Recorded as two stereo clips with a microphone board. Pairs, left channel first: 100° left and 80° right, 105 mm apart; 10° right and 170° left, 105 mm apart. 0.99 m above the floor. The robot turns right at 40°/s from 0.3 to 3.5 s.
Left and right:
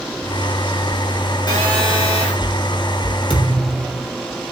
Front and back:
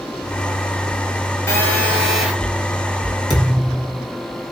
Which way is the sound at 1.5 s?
50° left.